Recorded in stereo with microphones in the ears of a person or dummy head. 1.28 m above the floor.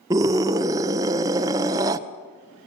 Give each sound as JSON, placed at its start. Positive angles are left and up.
{"t": 0.1, "sound": "a scream", "side_deg": -10, "distance_m": 0.6}